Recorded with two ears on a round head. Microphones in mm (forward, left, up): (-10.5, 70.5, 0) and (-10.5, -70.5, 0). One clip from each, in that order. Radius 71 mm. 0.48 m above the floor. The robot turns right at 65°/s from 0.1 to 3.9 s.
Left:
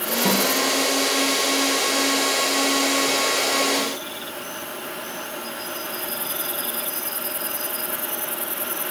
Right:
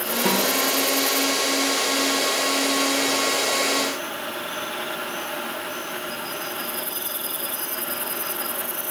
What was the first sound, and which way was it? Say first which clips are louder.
A snare drum: even; 5° left (ahead or behind).